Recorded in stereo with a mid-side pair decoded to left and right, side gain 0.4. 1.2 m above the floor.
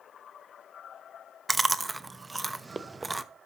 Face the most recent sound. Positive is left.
turn(degrees=-30)